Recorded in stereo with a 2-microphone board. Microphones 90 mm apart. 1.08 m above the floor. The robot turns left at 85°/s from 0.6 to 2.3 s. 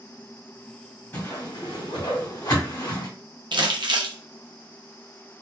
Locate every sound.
1.1 s a whoosh: 25° left (ahead or behind), 1.4 m; by 3.1 s 50° left (ahead or behind), 1.4 m
3.5 s crumpling: 60° right (ahead or behind), 0.6 m